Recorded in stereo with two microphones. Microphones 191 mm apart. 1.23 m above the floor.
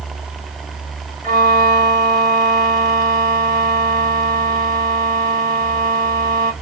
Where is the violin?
45° right (ahead or behind), 2.5 m.